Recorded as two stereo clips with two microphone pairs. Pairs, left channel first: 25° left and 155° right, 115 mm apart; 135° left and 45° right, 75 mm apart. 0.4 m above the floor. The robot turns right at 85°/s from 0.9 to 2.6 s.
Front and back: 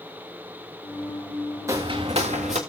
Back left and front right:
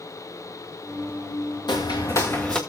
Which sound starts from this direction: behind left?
Footsteps, at 1.7 s.